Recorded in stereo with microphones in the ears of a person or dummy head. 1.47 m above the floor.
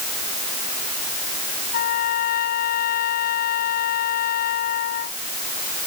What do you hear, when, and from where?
1.7 s a trumpet: 60° left (ahead or behind)